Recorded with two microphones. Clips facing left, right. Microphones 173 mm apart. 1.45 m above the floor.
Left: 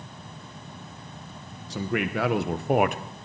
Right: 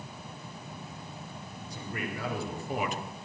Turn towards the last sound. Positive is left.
turn(degrees=55)  # may be behind; listen again after turning